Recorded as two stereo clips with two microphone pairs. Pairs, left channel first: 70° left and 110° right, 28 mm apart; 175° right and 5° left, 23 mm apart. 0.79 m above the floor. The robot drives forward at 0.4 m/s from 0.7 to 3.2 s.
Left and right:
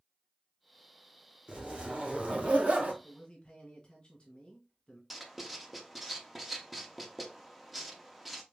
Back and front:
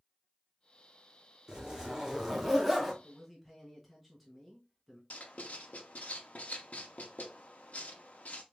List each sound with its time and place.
1.5 s a zipper: 55° right, 1.2 m; by 2.9 s 85° right, 1.0 m
3.0 s a man speaking: 80° left, 1.2 m; by 5.0 s 85° left, 1.2 m
5.1 s writing: 165° left, 0.6 m